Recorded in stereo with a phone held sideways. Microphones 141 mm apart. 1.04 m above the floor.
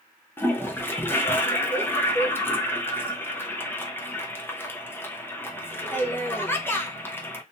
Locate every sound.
0.4 s a toilet flushing: 15° left (ahead or behind), 0.6 m